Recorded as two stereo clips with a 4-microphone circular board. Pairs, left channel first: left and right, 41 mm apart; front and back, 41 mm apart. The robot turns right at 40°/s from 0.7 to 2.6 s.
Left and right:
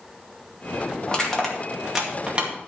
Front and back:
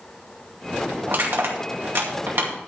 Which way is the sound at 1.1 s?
155° left.